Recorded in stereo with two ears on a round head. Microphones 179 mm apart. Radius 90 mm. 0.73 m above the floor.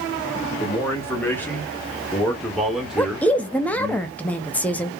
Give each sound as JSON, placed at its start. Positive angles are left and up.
{"t": 0.6, "sound": "a man speaking", "side_deg": 15, "distance_m": 1.7}
{"t": 3.0, "sound": "a woman speaking", "side_deg": 5, "distance_m": 0.6}